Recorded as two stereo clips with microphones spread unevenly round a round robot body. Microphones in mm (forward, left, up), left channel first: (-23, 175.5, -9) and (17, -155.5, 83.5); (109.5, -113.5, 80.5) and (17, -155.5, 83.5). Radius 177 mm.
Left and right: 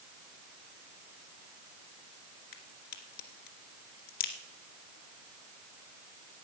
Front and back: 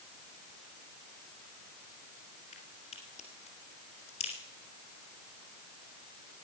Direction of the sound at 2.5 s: 65° left.